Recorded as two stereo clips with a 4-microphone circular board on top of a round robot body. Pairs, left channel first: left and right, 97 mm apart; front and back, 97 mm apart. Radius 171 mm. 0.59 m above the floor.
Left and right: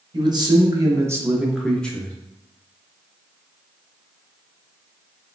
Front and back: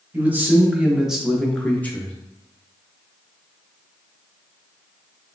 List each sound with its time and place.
0.1 s a man speaking: 115° right, 1.4 m; by 2.1 s 45° left, 1.0 m